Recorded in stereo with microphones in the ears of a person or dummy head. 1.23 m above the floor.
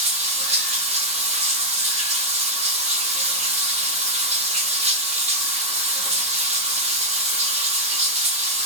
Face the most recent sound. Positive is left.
turn(degrees=-40)  # may be behind; listen again after turning